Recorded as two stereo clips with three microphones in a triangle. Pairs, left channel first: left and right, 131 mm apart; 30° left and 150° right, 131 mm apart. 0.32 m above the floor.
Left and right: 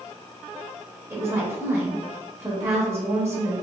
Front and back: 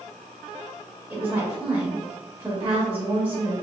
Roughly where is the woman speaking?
Right.